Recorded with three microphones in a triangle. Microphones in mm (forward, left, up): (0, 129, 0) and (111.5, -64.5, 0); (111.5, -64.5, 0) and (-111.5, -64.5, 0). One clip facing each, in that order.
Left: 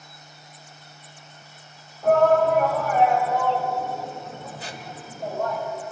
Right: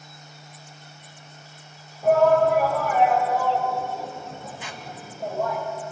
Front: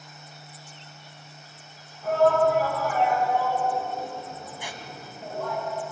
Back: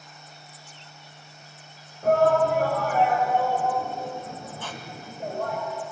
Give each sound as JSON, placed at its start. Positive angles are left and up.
{"t": 2.0, "sound": "a shout", "azimuth_deg": -145, "distance_m": 5.0}
{"t": 4.6, "sound": "a squeak", "azimuth_deg": 75, "distance_m": 1.6}